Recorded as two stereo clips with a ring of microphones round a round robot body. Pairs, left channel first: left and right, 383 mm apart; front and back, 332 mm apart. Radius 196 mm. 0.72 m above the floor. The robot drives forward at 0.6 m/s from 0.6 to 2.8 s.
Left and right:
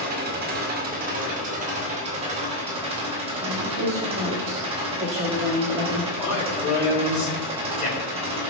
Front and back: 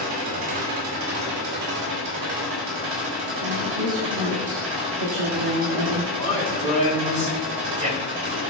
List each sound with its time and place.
0.0 s an engine running: 155° right, 2 m; by 8.5 s 165° right, 3.5 m
3.4 s a woman speaking: 160° right, 1.9 m
6.2 s a man speaking: 160° left, 5 m